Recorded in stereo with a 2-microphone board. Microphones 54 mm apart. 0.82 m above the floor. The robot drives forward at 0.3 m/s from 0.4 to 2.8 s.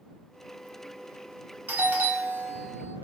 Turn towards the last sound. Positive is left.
turn(degrees=-30)  # may be behind; listen again after turning